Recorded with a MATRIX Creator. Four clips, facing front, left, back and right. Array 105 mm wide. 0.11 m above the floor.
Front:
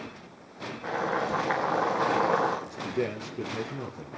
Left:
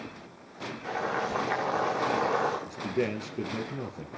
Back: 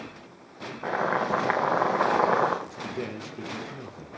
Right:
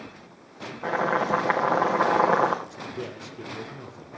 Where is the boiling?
130° right, 4 m.